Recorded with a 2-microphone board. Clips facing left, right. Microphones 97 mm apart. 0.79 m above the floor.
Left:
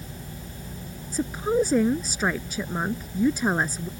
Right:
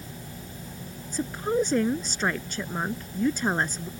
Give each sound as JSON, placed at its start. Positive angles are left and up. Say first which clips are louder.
{"t": 1.1, "sound": "a woman speaking", "louder": "left 2 dB", "side_deg": 5}